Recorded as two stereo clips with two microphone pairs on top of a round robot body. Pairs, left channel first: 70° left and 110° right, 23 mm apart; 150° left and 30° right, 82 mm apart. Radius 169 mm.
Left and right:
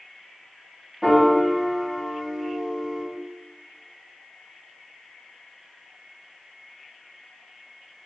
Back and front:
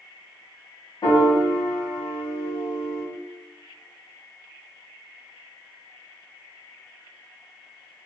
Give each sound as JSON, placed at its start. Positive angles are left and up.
{"t": 1.0, "sound": "a piano", "azimuth_deg": -175, "distance_m": 1.3}